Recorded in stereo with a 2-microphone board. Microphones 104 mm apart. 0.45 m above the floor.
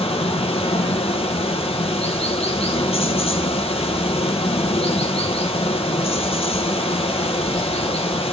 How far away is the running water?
About 1.2 m.